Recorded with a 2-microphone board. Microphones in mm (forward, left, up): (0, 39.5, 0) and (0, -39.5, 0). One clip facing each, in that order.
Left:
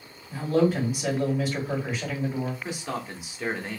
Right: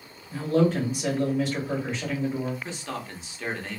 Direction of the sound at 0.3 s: 10° left (ahead or behind).